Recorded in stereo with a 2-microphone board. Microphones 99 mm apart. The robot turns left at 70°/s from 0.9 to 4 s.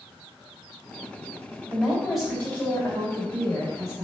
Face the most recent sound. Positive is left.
turn(degrees=50)